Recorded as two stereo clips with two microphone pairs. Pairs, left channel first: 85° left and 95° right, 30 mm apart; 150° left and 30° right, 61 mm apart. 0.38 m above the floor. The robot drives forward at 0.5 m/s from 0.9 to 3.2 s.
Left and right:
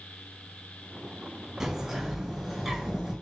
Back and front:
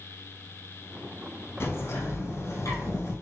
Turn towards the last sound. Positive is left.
turn(degrees=-175)